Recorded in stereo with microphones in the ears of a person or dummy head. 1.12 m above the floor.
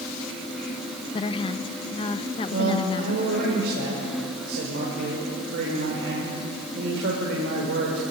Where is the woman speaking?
25° left (ahead or behind), 0.6 m.